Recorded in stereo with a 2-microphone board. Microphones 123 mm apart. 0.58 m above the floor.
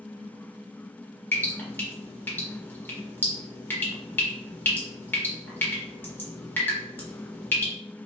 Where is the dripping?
15° left (ahead or behind), 1.5 m.